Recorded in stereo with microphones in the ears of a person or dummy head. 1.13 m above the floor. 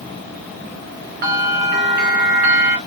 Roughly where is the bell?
Right.